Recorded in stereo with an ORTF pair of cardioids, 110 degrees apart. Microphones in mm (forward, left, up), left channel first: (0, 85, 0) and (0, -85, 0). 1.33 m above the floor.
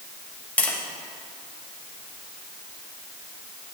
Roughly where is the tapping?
Ahead.